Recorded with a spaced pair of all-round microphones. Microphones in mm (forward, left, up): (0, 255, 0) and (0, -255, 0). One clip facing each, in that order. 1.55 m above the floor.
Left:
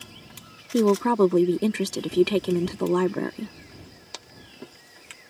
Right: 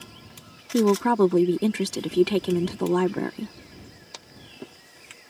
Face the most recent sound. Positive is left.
turn(degrees=-5)  # may be behind; listen again after turning